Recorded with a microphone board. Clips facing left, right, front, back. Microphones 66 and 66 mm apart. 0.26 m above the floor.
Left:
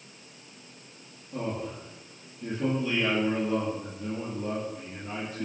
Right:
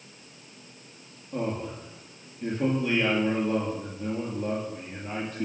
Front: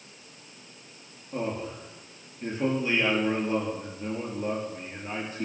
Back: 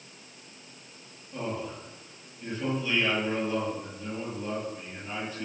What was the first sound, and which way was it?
A man speaking, 55° right.